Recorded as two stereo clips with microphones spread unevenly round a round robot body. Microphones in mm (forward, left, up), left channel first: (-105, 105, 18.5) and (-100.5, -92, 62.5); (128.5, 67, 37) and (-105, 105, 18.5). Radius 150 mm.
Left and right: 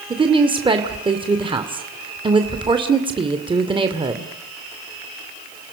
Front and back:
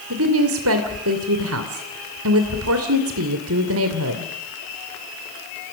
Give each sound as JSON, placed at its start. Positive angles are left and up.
{"t": 0.1, "sound": "a woman speaking", "azimuth_deg": -155, "distance_m": 2.5}